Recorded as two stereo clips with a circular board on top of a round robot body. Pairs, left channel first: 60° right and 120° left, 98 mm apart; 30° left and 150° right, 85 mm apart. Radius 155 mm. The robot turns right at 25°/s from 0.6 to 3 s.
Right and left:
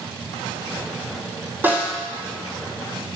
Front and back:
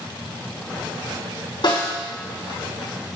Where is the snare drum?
50° left, 3 m; by 1.9 s 60° left, 3 m.